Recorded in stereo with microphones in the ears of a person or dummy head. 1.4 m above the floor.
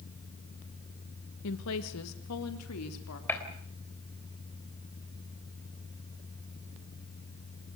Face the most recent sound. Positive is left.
turn(degrees=10)  # may be behind; listen again after turning